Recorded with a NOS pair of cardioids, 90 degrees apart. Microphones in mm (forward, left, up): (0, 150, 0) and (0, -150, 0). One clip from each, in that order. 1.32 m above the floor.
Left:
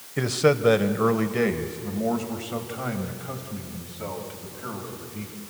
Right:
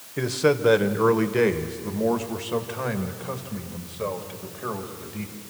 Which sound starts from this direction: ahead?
A man speaking, at 0.2 s.